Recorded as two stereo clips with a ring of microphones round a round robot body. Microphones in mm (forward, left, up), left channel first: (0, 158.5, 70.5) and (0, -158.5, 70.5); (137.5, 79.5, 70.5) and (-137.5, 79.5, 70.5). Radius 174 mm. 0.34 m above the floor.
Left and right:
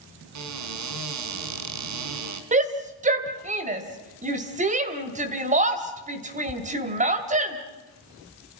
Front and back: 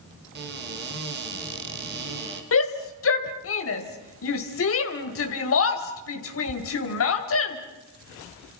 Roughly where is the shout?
Ahead right.